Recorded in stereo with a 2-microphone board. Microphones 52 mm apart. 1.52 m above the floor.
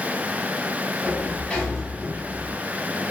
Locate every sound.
1.0 s a sliding door: 20° left (ahead or behind), 1.1 m